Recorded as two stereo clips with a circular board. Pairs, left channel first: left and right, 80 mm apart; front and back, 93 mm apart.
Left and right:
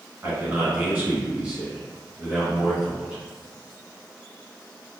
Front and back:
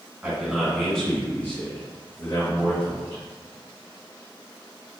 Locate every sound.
0.2 s a man speaking: 120° right, 1.8 m; by 3.2 s 10° right, 2.5 m